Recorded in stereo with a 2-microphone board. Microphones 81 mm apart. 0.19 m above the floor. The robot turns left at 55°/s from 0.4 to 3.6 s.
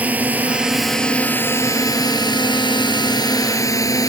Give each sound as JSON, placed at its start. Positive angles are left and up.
{"t": 0.0, "sound": "a drone", "side_deg": -15}